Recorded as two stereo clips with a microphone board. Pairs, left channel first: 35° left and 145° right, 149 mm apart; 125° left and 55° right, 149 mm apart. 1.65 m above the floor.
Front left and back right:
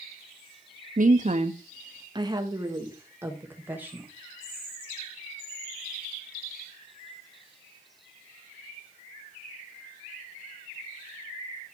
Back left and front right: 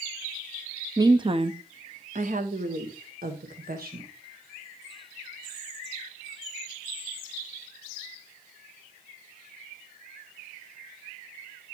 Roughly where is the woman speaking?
Behind right.